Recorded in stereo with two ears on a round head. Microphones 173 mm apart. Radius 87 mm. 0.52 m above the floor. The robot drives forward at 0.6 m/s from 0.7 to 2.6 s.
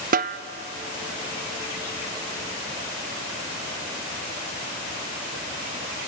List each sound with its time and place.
0.1 s a snare drum: 45° right (ahead or behind), 0.7 m